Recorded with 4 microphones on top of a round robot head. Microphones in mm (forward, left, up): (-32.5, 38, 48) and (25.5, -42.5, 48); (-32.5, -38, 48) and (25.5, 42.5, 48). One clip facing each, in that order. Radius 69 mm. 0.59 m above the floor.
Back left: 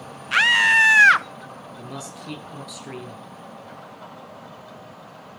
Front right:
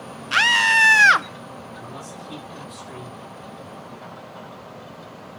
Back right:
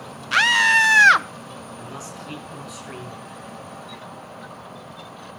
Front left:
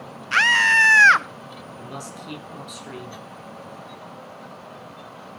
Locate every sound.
0.3 s a scream: 65° right, 0.6 m
1.8 s a man speaking: 120° left, 7.5 m